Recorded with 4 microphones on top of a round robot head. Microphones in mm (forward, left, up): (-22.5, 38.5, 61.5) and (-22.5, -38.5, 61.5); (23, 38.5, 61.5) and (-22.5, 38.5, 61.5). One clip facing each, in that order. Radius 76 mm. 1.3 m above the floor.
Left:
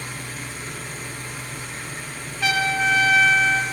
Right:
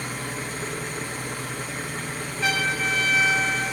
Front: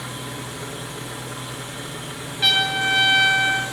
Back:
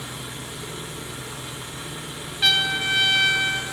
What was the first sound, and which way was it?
An engine running, 35° right.